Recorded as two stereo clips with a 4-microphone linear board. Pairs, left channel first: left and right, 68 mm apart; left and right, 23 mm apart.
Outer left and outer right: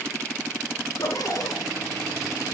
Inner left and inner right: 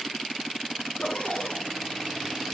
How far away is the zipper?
About 1.5 m.